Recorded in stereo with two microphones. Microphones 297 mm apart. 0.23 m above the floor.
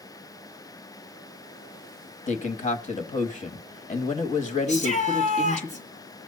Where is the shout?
25° left (ahead or behind), 2.5 m.